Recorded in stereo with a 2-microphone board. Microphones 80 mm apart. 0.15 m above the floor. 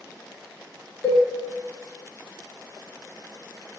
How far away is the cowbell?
About 1.2 m.